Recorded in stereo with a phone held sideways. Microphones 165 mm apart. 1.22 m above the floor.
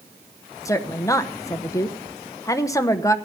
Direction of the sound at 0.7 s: 20° left (ahead or behind).